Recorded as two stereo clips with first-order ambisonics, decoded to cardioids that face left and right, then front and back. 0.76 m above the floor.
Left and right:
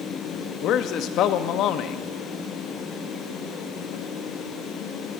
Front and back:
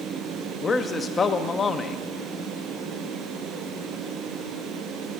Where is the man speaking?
65° left, 0.7 m.